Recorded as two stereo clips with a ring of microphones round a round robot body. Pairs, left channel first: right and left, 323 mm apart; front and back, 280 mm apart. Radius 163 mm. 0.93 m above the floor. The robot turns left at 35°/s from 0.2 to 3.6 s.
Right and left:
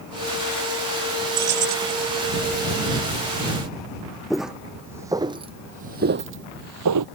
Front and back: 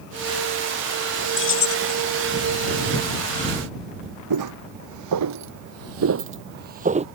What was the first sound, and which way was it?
Keys jangling, 50° left.